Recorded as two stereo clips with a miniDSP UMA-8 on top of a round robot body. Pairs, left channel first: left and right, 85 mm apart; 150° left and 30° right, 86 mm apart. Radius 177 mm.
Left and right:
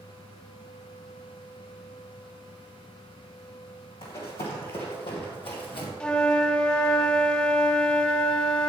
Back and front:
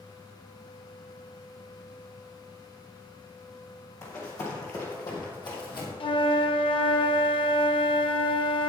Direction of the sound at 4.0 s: 95° left.